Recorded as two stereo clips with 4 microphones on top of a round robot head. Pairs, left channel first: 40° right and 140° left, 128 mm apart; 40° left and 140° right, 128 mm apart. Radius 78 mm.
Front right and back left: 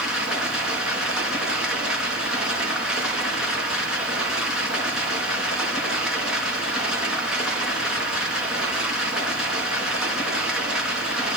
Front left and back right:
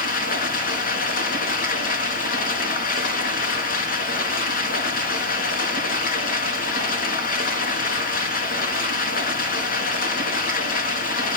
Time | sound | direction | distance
0.0 | running water | 55° left | 4 m